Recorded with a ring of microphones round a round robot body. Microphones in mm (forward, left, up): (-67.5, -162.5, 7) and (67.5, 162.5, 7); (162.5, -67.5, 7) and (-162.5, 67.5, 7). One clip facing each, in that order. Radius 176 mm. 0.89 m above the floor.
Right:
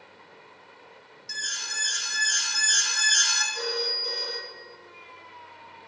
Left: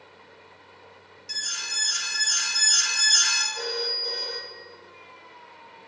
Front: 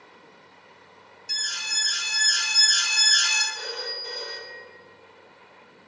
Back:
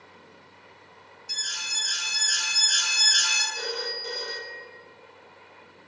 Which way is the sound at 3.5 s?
175° left.